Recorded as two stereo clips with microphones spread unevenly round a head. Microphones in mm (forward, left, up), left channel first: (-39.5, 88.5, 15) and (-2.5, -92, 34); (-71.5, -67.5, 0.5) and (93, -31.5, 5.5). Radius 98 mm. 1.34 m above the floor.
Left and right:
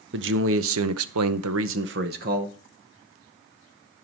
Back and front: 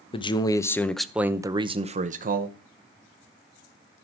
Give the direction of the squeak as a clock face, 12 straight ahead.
I don't hear a squeak.